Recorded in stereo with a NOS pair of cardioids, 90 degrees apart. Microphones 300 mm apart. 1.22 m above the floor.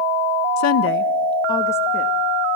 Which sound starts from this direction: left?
A woman speaking, at 0.6 s.